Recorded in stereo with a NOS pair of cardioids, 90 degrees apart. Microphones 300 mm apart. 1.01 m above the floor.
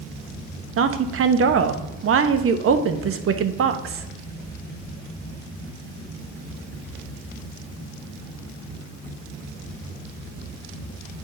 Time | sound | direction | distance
0.8 | a woman speaking | 45° right | 0.9 m